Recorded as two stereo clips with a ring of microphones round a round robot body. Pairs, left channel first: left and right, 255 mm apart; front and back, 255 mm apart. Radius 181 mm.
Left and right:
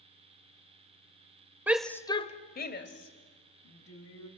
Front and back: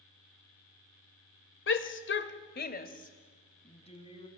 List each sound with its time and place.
1.7 s a shout: 10° right, 1.6 m; by 4.3 s 70° left, 4 m